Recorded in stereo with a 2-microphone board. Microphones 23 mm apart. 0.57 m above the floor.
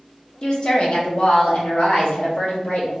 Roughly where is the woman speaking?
Left.